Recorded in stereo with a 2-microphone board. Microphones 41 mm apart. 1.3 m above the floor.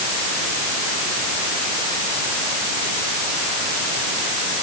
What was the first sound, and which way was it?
Only background noise.